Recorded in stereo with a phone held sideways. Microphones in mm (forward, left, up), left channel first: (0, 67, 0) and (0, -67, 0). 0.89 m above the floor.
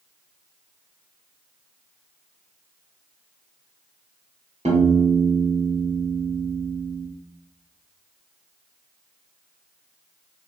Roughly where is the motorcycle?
I don't hear a motorcycle.